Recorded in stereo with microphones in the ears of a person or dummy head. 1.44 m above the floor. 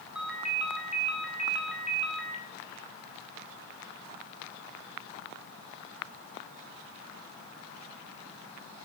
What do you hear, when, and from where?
0.1 s a ringtone: 5° right (ahead or behind), 1.9 m